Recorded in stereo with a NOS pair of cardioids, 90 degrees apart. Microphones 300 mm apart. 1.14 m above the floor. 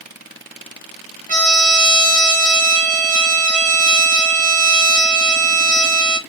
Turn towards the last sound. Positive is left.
turn(degrees=-25)